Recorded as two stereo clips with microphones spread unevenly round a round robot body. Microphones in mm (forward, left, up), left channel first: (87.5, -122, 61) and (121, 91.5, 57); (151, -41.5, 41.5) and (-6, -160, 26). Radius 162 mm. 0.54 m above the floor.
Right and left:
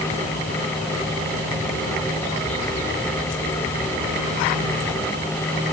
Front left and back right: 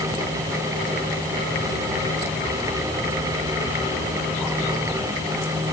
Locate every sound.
Only background noise.